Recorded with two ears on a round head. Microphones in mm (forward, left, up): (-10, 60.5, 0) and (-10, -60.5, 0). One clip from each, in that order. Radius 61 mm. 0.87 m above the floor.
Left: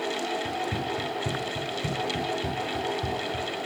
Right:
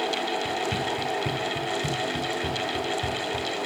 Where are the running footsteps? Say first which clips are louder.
Right 3 dB; 25° right (ahead or behind), 0.9 m; by 3.5 s 35° right (ahead or behind), 2.5 m.